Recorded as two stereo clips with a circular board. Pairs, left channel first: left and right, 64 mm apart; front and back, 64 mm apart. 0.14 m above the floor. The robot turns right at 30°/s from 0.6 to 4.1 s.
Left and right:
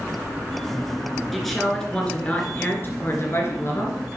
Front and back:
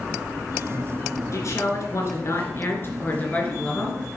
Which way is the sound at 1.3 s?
Straight ahead.